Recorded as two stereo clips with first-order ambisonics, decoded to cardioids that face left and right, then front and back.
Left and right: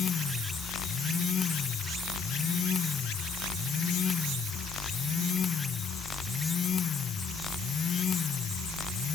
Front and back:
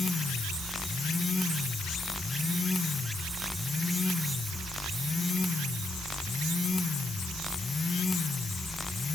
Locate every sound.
Only background noise.